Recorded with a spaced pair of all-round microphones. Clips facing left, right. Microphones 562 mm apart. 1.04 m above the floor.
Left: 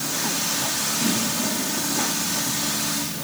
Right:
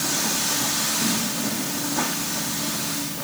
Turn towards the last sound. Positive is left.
No sound to turn to.